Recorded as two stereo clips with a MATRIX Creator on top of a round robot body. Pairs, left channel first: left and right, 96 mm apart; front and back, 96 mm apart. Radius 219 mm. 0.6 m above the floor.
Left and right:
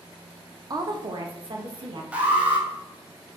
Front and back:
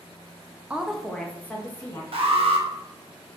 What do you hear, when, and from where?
0.7 s a woman speaking: 110° right, 0.7 m; by 2.0 s 60° right, 1.1 m
2.1 s an alarm: 165° right, 0.9 m